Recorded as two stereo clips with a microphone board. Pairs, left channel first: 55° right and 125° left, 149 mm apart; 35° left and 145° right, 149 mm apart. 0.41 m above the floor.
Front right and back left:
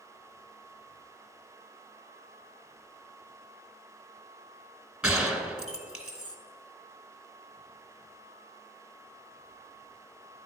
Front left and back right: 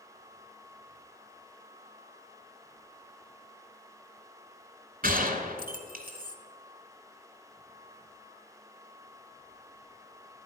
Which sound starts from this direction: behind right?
A gunshot, at 5.0 s.